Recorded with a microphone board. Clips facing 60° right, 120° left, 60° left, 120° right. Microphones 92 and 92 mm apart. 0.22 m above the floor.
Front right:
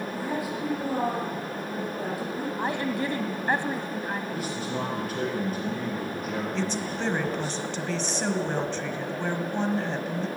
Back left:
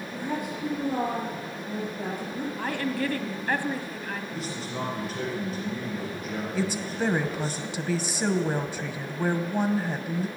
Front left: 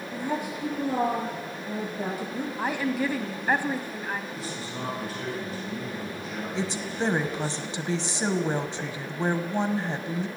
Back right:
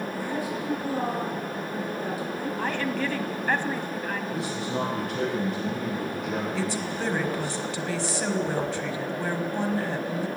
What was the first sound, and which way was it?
A woman speaking, 25° left.